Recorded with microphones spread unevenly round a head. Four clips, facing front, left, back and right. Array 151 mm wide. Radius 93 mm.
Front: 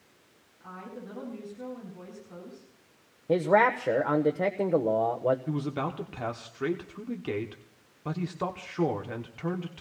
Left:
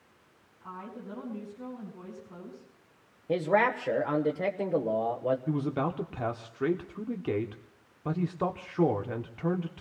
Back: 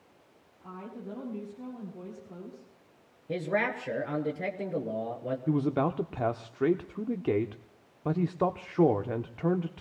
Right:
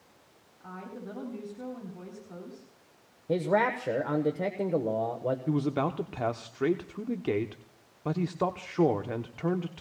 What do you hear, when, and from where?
0.6 s a woman speaking: 125° right, 9 m
3.3 s a man speaking: 10° left, 1.2 m
5.5 s a man speaking: 150° right, 0.7 m